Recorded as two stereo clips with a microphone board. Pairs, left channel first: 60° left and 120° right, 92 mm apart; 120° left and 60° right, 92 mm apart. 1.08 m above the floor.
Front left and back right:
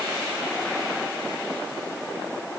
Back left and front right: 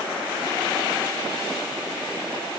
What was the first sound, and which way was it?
Only background noise.